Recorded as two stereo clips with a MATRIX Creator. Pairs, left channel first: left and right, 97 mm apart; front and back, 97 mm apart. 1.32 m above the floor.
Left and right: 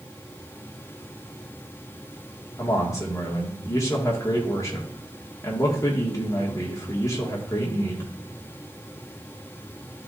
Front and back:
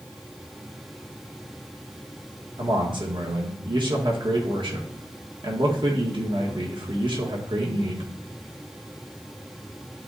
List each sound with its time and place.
2.6 s a man speaking: 145° left, 1.9 m